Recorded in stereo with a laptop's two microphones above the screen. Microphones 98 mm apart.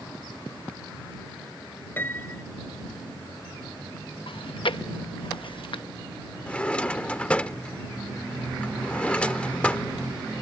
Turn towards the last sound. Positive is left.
turn(degrees=15)  # may be behind; listen again after turning